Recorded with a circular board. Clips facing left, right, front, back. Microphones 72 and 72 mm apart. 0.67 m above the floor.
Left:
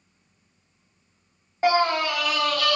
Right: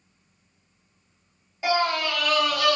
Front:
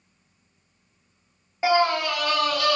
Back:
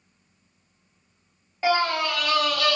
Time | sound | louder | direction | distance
1.6 | a scream | left 3 dB, front 2 dB | 65° left | 0.8 m